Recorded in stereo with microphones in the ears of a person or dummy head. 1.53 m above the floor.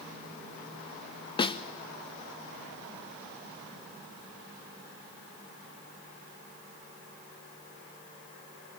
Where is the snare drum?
25° left (ahead or behind), 0.6 m.